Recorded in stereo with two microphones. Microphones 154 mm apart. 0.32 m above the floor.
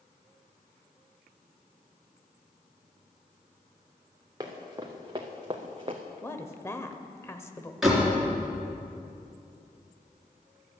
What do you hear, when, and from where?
4.4 s running footsteps: 25° right (ahead or behind), 3 m; by 6.0 s 35° right (ahead or behind), 1.5 m
6.2 s a woman speaking: 15° left (ahead or behind), 0.9 m
7.8 s a door slam: centre (ahead or behind), 3.5 m